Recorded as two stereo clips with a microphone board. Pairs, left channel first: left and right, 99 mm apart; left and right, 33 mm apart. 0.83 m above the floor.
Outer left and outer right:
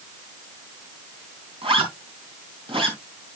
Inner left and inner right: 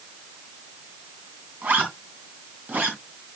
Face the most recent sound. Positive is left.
turn(degrees=-70)  # may be behind; listen again after turning